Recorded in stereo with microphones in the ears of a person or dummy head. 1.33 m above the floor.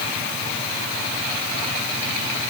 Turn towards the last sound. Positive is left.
No sound to turn to.